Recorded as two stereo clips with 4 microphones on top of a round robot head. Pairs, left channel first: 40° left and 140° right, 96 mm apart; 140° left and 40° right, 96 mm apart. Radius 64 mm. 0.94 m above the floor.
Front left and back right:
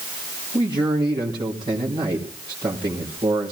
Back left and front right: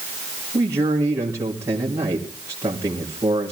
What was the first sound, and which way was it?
A man speaking, 100° right.